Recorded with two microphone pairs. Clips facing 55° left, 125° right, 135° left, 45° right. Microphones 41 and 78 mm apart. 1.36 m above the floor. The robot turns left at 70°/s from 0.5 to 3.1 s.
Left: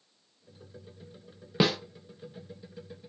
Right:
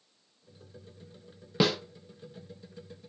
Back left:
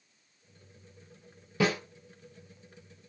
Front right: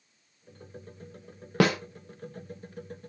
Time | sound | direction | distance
1.6 | a snare drum | 20° right | 0.5 m